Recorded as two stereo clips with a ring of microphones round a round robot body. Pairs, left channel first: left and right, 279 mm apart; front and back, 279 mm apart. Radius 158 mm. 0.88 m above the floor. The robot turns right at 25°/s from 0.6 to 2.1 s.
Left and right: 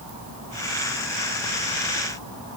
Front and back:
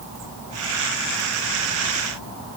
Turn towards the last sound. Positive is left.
No sound to turn to.